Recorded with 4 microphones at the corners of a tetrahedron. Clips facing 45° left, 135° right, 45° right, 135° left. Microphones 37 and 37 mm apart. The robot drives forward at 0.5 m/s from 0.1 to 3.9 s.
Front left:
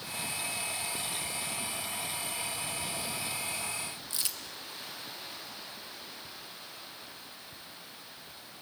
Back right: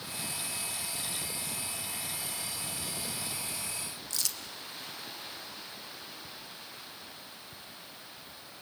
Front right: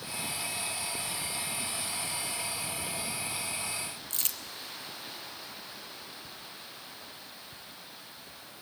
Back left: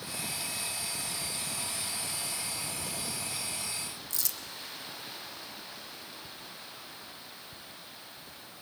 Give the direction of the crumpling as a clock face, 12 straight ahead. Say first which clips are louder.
Back right 3 dB, front right 1 dB; 1 o'clock.